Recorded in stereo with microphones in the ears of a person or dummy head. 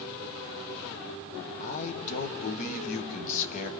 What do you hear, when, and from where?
1.6 s a man speaking: 40° left (ahead or behind), 1.5 m